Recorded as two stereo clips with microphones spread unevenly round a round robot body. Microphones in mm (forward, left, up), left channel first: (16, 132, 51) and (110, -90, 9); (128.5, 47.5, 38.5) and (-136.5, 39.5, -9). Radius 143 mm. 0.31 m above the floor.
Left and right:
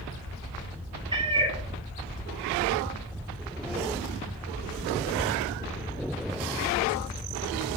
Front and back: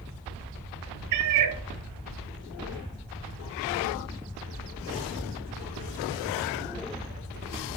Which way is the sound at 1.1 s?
145° right.